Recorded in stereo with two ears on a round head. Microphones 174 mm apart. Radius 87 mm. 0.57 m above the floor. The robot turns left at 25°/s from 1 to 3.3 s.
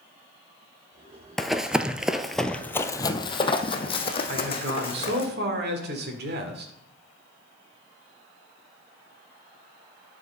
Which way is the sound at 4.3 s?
55° right (ahead or behind).